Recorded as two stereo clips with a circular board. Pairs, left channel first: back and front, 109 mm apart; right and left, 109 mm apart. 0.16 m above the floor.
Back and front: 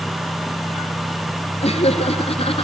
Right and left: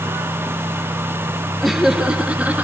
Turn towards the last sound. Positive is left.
turn(degrees=160)